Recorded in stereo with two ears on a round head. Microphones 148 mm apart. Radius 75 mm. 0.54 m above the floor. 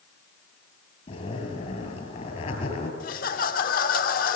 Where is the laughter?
55° left (ahead or behind), 1.1 m.